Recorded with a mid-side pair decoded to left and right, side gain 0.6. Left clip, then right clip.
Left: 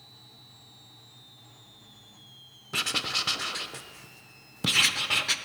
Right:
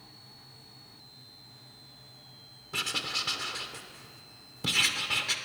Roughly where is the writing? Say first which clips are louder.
Left 3 dB; ahead left.